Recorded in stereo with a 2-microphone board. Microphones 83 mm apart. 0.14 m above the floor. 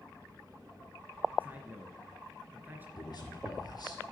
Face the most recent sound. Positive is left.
turn(degrees=55)  # may be behind; listen again after turning